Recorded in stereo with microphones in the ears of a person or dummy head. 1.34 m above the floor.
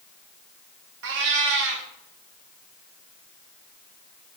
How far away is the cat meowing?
About 1.4 m.